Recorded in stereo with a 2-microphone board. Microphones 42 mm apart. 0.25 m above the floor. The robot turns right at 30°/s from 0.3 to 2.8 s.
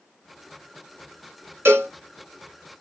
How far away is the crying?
I don't hear crying.